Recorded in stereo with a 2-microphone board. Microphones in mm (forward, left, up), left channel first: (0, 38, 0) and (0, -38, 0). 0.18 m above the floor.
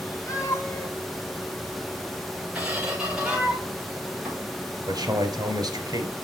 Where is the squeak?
15° right (ahead or behind), 5.5 m.